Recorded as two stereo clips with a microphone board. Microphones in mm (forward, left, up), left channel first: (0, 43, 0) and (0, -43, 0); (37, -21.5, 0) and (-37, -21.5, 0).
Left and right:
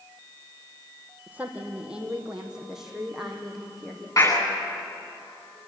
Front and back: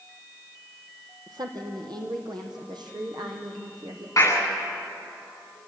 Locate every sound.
1.3 s a woman speaking: 160° right, 3.5 m; by 4.1 s straight behind, 4.5 m
4.2 s a clap: 45° left, 10 m